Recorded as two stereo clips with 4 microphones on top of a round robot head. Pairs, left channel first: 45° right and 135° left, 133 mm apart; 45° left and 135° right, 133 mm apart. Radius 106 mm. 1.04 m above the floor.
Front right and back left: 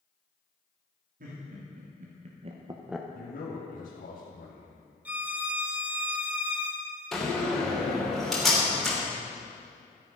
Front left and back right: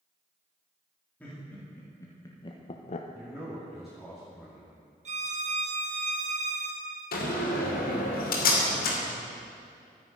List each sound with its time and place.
1.2 s laughter: 125° left, 2.5 m; by 3.0 s 35° left, 0.8 m
3.1 s a man speaking: 45° right, 2.5 m
5.0 s a violin: 150° right, 1.4 m
7.1 s a door slam: 40° left, 2.5 m